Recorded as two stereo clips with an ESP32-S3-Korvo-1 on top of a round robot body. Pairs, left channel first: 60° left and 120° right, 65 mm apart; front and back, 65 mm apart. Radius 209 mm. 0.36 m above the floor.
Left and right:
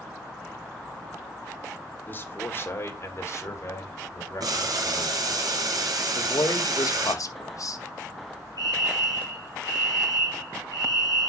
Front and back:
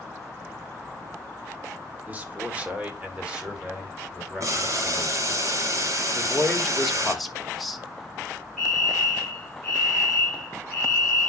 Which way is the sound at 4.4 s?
145° right.